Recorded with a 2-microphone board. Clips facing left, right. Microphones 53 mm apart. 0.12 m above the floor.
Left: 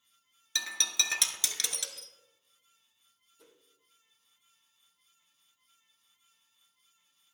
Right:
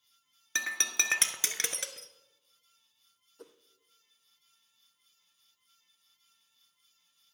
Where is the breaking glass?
35° right (ahead or behind), 0.7 m.